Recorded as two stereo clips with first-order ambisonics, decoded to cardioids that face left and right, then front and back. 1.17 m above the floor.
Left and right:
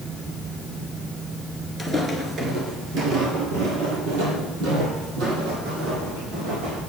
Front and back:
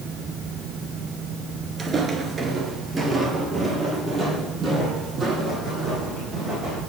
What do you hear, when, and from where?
1.8 s footsteps: 165° right, 1.1 m; by 6.8 s 95° right, 4 m